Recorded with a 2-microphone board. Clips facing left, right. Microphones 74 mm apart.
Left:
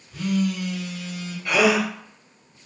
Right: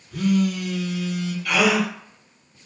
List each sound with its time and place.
0.1 s a phone buzzing: 65° right (ahead or behind), 0.7 m
1.4 s a gasp: 30° left (ahead or behind), 1.1 m